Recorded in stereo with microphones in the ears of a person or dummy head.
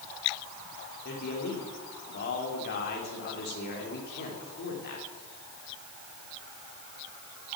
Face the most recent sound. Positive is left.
turn(degrees=60)  # may be behind; listen again after turning